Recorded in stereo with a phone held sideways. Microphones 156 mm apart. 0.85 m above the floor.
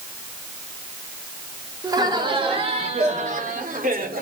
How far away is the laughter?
About 2 m.